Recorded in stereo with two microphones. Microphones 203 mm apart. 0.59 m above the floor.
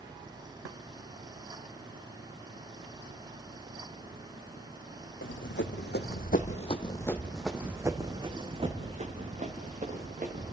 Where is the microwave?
I don't hear a microwave.